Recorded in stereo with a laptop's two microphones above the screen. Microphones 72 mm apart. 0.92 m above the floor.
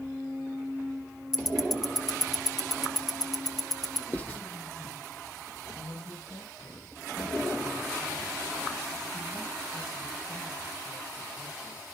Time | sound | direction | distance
1.3 | ticking | 55° left (ahead or behind) | 0.7 m
4.1 | writing | 25° left (ahead or behind) | 0.9 m
5.8 | a man speaking | 70° left (ahead or behind) | 5.5 m